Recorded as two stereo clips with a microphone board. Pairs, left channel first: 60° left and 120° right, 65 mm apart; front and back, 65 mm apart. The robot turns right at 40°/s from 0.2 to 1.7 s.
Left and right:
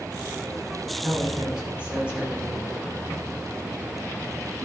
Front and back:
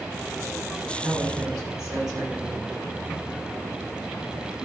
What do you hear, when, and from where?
1.0 s a woman speaking: 135° left, 6.5 m; by 2.7 s 165° left, 6.5 m